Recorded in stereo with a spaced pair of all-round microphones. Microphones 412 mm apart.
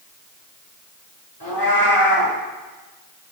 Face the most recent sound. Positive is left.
turn(degrees=55)  # may be behind; listen again after turning